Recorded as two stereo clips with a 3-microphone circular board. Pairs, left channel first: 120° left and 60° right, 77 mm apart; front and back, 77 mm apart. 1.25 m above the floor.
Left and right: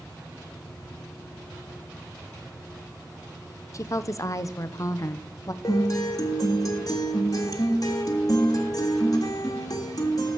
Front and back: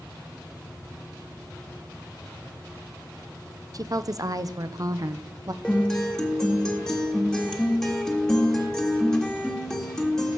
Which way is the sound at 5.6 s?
80° left.